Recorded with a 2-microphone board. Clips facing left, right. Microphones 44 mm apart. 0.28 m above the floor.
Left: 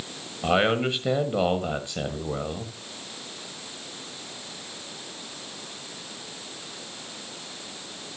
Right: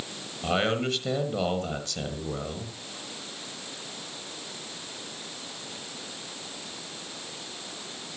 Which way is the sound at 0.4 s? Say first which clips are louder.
Left 4 dB; 20° left (ahead or behind).